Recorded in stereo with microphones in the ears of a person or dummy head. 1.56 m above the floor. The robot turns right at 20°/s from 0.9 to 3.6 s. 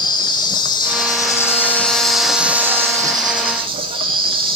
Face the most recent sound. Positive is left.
turn(degrees=-150)